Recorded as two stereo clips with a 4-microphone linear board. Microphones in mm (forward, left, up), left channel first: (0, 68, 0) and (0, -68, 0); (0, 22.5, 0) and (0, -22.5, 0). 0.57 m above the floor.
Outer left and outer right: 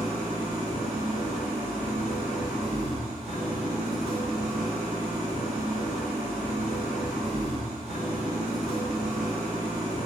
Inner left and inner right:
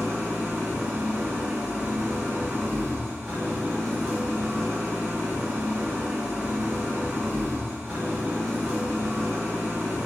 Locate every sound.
0.0 s an engine running: 55° right (ahead or behind), 1.4 m